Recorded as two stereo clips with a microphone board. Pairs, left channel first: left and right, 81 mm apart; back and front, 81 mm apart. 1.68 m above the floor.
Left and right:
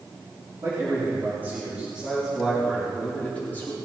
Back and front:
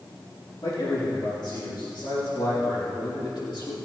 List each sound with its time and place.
0.6 s a man speaking: 145° right, 5 m; by 3.8 s 155° left, 4.5 m